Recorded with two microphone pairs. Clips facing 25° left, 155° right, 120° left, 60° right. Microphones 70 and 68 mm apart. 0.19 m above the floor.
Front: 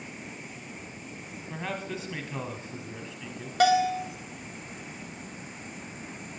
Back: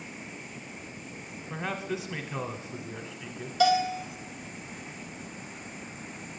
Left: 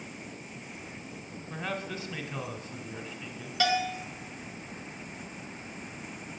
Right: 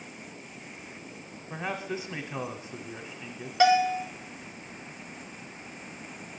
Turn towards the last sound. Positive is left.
turn(degrees=5)